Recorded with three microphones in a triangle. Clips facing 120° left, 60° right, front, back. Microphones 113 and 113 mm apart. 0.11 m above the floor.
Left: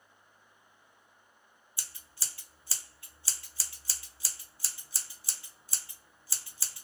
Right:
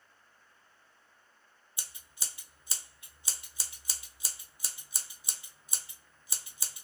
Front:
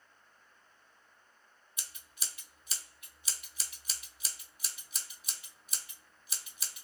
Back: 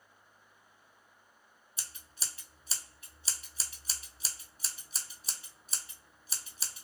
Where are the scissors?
130° right, 0.7 m.